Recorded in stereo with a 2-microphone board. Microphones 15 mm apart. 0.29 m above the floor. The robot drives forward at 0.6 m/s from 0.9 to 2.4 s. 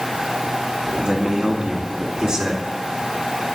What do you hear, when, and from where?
1.0 s a man speaking: 60° right (ahead or behind), 2 m; by 2.6 s 45° right (ahead or behind), 2.5 m